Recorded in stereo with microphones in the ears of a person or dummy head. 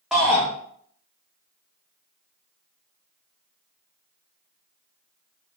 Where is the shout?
Centre (ahead or behind), 0.7 m.